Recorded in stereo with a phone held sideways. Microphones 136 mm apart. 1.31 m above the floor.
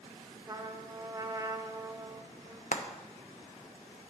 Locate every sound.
0.5 s a trumpet: 25° right (ahead or behind), 0.7 m
2.7 s frying: 75° left (ahead or behind), 0.9 m